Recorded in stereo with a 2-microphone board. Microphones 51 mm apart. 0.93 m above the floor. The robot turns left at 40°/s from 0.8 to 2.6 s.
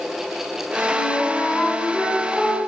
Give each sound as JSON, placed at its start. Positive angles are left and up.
{"t": 0.9, "sound": "a flute", "azimuth_deg": 65, "distance_m": 2.5}